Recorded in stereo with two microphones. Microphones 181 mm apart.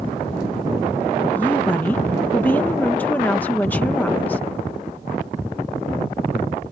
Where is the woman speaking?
10° left (ahead or behind).